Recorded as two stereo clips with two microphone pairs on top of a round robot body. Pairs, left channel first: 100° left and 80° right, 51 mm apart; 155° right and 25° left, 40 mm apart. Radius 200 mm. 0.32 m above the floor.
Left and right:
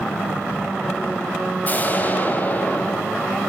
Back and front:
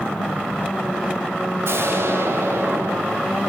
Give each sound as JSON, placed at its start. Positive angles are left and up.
{"t": 1.6, "sound": "an explosion", "azimuth_deg": 40, "distance_m": 3.0}